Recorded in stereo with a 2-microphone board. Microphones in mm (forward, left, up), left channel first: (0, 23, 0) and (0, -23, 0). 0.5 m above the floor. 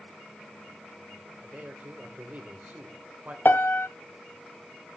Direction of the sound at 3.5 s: 50° left (ahead or behind).